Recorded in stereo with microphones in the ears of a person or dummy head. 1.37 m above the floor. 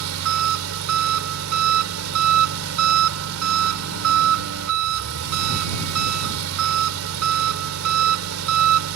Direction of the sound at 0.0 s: 85° right.